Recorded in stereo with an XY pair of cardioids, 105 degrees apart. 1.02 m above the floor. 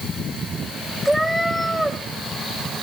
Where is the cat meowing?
5° right, 2.5 m.